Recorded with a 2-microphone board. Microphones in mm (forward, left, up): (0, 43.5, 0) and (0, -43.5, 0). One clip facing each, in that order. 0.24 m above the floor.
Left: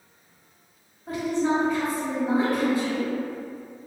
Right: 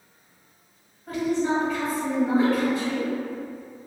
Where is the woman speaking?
15° left (ahead or behind), 1.3 m.